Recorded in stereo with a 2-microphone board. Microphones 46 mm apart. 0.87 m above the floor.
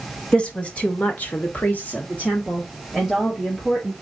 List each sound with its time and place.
0.3 s a woman speaking: 25° left (ahead or behind), 1.3 m; by 3.9 s 15° left (ahead or behind), 2 m